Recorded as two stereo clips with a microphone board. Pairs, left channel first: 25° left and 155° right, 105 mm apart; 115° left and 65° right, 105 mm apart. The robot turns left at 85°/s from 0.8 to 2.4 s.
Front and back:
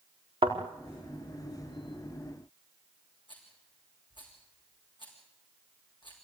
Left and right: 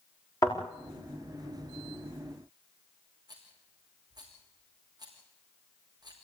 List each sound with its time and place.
0.4 s a thud: 165° left, 4.5 m
3.3 s a rattle: 20° right, 6 m